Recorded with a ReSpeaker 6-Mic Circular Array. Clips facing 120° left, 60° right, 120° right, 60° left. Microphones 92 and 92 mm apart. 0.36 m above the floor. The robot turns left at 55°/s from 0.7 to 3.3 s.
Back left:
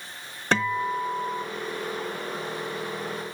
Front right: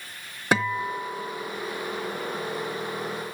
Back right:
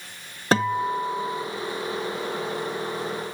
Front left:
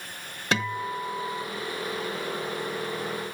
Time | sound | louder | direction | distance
0.5 | a guitar | even, back right 6 dB | 135° right | 0.7 m